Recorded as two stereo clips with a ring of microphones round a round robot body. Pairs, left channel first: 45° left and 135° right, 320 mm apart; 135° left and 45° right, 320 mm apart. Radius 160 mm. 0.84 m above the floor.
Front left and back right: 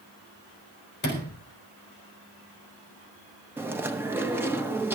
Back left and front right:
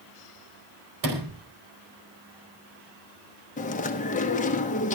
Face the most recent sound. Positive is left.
turn(degrees=150)